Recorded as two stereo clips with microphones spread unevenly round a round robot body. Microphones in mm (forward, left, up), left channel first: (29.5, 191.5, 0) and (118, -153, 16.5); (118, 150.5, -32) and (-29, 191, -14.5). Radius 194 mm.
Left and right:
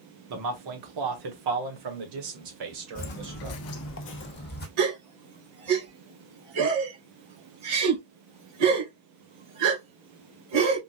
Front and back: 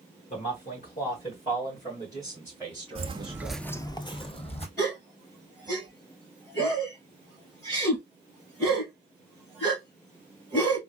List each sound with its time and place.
0.3 s a man speaking: 45° right, 1.1 m; by 3.6 s 105° right, 2 m
3.0 s footsteps: 170° left, 0.6 m; by 4.7 s 40° left, 1.3 m
4.8 s a gasp: 95° right, 1.8 m